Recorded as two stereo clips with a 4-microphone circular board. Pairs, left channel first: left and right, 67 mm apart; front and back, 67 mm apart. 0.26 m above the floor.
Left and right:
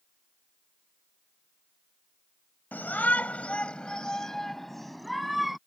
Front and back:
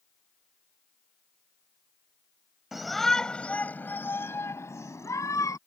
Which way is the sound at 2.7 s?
100° left.